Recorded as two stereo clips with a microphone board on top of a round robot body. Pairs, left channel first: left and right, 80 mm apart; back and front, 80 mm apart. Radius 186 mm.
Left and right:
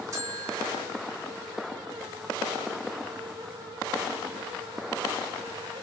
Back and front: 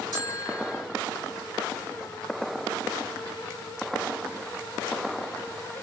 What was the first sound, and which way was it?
A bell, 35° right.